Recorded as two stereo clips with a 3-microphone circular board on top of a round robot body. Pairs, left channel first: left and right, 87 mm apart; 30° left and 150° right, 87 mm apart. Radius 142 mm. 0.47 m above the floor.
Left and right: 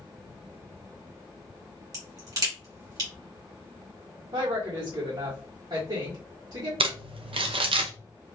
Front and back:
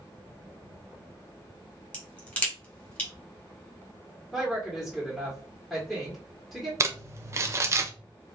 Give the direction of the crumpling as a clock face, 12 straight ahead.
3 o'clock.